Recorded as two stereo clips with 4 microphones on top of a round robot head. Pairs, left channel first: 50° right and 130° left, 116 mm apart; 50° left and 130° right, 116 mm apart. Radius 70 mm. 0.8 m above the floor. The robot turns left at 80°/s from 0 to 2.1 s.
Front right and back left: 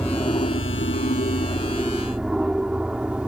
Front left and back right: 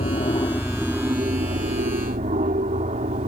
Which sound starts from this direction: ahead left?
An aircraft, at 0.0 s.